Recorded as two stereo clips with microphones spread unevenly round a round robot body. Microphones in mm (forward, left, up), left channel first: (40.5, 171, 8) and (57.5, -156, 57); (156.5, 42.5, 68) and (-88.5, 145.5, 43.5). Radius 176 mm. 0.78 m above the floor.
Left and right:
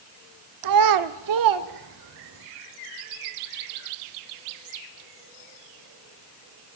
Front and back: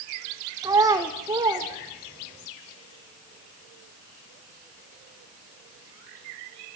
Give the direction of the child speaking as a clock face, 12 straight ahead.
4 o'clock.